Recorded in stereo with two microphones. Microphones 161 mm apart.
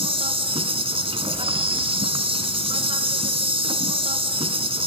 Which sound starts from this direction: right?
An insect, at 0.0 s.